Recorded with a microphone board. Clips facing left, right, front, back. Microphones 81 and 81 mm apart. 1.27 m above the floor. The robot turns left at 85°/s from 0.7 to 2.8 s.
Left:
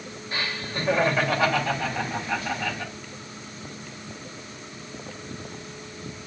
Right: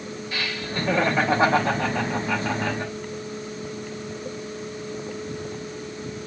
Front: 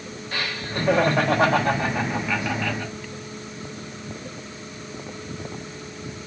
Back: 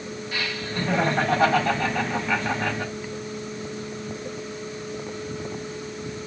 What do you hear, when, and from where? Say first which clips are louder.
0.3 s laughter: even, front 2 dB; 35° left, 3 m; by 2.9 s 145° right, 3 m